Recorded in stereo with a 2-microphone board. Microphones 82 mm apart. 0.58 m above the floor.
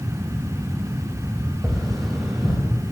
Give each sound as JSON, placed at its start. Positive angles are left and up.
{"t": 1.6, "sound": "tapping", "side_deg": 0, "distance_m": 5.5}